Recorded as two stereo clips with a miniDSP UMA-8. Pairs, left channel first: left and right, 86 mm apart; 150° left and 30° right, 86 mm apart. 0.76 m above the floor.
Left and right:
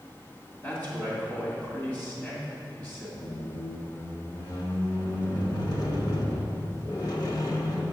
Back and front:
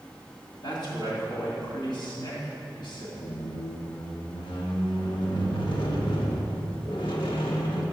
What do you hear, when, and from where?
0.6 s a man speaking: 150° left, 2 m
3.2 s a squeak: 130° left, 0.9 m